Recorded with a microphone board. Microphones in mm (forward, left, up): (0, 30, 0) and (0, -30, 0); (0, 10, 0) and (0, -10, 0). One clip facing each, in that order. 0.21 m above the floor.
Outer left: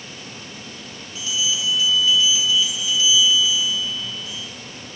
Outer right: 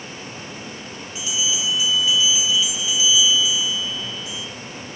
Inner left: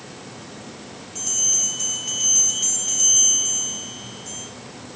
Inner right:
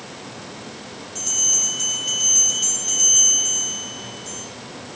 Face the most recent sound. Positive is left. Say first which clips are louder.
# outer left 1 dB, inner right 1 dB
turn(degrees=-15)  # may be behind; listen again after turning